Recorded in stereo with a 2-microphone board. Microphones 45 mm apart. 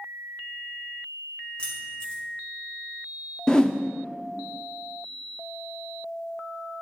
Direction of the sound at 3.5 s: 20° left (ahead or behind).